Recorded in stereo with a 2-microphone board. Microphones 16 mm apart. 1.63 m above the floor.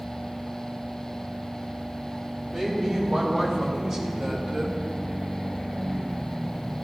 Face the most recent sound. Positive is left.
turn(degrees=-40)  # may be behind; listen again after turning